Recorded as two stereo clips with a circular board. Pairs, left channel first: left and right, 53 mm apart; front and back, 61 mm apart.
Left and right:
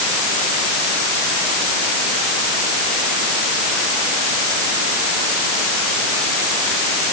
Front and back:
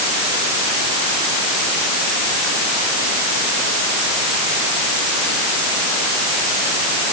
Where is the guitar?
No guitar in this recording.